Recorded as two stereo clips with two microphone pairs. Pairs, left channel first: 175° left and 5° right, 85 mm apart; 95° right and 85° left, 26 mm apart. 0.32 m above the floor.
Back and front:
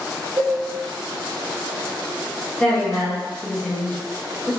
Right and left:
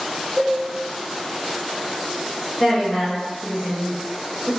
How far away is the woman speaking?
About 1.4 m.